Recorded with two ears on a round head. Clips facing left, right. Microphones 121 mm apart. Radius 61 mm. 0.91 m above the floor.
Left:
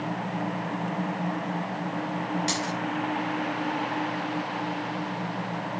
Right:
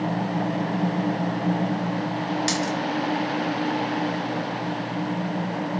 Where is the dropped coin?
65° right (ahead or behind), 4 m.